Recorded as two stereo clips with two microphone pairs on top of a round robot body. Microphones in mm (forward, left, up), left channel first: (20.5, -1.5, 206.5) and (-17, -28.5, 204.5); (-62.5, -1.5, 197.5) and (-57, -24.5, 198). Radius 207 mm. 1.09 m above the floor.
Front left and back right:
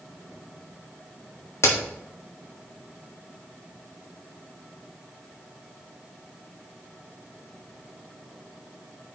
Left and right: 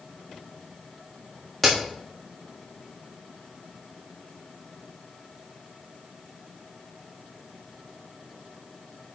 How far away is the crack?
About 1.6 m.